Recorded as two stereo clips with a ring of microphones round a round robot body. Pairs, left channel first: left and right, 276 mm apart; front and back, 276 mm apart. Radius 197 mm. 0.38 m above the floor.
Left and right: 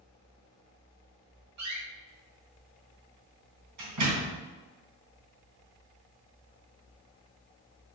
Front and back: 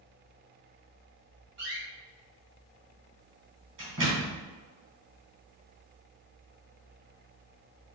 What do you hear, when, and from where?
1.6 s a door slam: 125° right, 3 m